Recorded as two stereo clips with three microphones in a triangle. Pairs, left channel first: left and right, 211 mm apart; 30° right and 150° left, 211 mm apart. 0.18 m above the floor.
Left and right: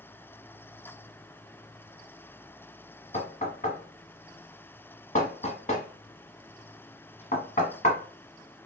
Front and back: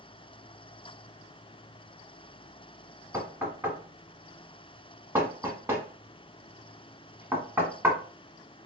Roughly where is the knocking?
Left.